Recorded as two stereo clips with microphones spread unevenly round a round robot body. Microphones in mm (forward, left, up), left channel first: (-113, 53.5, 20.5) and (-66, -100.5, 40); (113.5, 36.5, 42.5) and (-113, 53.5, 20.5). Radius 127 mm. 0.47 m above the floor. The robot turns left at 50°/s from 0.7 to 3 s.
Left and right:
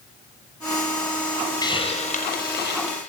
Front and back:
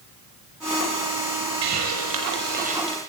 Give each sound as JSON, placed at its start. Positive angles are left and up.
{"t": 1.6, "sound": "a hiss", "azimuth_deg": 175, "distance_m": 6.5}